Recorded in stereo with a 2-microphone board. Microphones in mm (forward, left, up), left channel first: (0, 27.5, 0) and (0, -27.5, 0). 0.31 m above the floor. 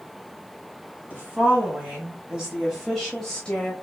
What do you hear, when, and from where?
1.1 s a woman speaking: 25° right (ahead or behind), 2 m; by 3.7 s 30° left (ahead or behind), 1.0 m